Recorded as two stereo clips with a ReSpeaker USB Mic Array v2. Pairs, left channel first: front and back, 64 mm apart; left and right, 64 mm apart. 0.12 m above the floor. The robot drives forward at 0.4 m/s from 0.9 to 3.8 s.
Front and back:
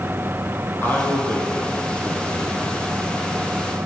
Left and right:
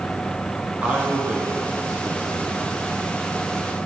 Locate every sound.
0.8 s a man speaking: 35° right, 1.4 m; by 2.8 s 95° right, 1.2 m